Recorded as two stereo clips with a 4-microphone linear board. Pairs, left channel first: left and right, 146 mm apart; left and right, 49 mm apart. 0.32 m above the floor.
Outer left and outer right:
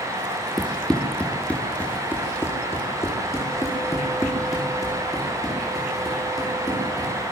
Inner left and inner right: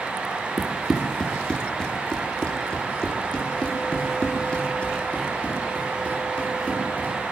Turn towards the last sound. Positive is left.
turn(degrees=25)  # may be behind; listen again after turning